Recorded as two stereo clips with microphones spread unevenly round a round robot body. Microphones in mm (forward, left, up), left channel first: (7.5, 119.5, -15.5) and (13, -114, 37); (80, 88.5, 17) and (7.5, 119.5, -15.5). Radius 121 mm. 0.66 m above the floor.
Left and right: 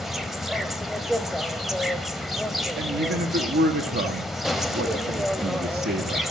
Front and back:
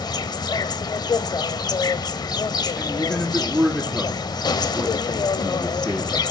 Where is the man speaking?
140° right, 1.4 m.